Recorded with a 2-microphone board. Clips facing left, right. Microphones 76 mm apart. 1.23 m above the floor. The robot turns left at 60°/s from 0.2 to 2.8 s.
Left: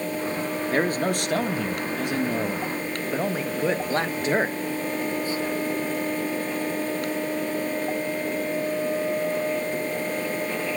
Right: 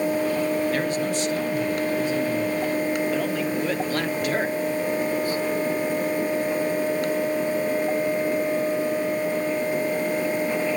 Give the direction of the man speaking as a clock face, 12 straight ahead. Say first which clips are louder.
Left 1 dB; 7 o'clock.